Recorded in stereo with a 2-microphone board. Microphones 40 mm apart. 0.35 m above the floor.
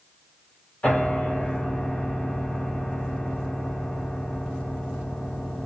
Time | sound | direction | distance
0.8 | a piano | 45° left (ahead or behind) | 1.5 m